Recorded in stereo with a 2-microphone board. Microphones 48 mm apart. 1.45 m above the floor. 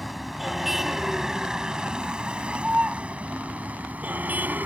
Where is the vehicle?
Centre (ahead or behind); by 4.7 s 40° right (ahead or behind).